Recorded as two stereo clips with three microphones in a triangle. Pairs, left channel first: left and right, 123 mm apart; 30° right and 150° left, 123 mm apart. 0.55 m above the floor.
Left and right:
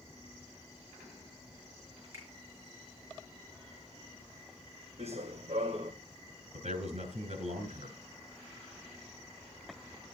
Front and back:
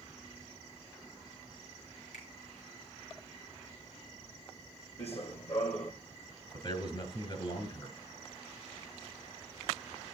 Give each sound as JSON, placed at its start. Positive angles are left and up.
{"t": 2.1, "sound": "a finger snap", "azimuth_deg": -25, "distance_m": 6.0}
{"t": 5.0, "sound": "running footsteps", "azimuth_deg": -60, "distance_m": 1.9}
{"t": 6.5, "sound": "a man speaking", "azimuth_deg": -70, "distance_m": 3.5}